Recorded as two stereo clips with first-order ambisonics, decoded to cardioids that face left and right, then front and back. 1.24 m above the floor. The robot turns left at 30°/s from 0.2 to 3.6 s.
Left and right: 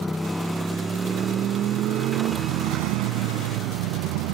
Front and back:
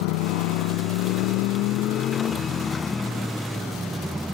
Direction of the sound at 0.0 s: 5° left.